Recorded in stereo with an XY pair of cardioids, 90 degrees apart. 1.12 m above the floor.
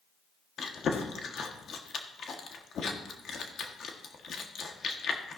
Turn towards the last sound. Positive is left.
turn(degrees=60)